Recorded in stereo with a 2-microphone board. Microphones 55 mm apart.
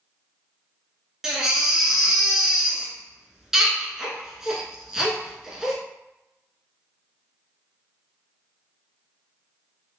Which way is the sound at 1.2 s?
10° right (ahead or behind).